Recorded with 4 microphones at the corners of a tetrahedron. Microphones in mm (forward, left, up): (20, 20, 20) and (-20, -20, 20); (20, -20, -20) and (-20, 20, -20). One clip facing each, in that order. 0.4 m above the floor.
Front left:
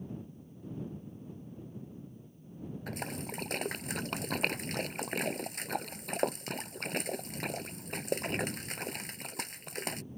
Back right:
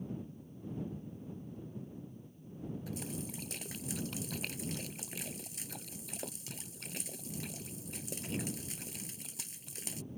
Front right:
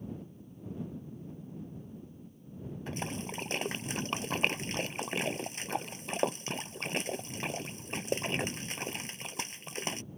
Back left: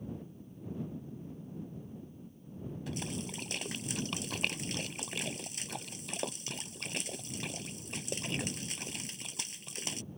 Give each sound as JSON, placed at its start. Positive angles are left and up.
{"t": 2.9, "sound": "a splash", "azimuth_deg": 10}